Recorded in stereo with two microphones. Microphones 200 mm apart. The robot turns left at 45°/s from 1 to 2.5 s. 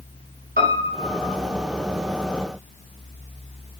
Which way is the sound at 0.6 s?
45° right (ahead or behind).